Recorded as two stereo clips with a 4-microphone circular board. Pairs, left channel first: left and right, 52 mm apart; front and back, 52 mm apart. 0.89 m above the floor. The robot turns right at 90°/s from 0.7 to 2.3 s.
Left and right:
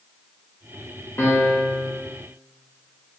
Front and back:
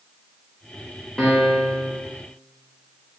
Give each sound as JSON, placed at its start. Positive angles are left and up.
{"t": 1.2, "sound": "a piano", "azimuth_deg": 80, "distance_m": 0.7}